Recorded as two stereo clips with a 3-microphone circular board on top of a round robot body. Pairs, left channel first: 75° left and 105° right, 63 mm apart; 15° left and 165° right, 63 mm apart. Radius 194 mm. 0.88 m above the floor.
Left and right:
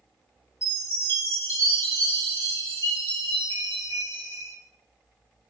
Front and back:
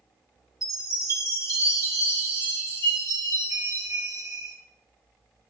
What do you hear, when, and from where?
0.6 s a chime: 30° left, 2 m